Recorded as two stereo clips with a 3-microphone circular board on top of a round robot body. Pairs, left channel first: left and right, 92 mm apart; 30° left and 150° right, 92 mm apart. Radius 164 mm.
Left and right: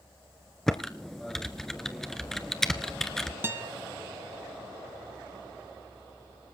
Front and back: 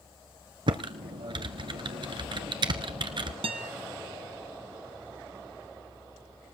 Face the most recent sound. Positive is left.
turn(degrees=-155)